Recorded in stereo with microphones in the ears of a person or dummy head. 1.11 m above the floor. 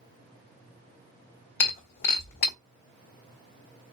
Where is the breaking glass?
60° left (ahead or behind), 1.7 m.